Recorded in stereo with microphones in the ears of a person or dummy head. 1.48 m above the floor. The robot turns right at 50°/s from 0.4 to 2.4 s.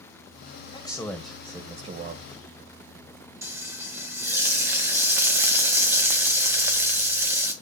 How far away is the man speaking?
About 1.3 m.